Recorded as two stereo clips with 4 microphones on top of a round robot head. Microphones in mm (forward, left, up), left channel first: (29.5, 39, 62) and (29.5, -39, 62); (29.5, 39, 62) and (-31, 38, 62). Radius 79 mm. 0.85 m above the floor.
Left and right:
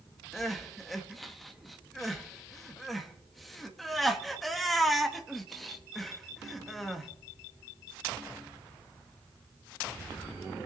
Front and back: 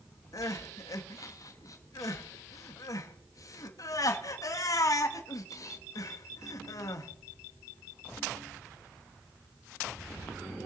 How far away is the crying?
About 1.5 m.